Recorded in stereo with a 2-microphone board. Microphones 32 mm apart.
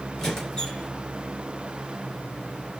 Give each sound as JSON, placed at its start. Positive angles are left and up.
{"t": 0.2, "sound": "a squeak", "side_deg": 15, "distance_m": 2.5}